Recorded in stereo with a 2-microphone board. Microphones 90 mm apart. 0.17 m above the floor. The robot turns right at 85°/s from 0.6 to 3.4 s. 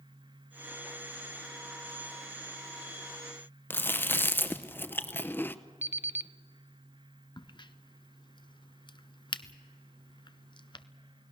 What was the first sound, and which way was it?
Chewing, 20° left (ahead or behind).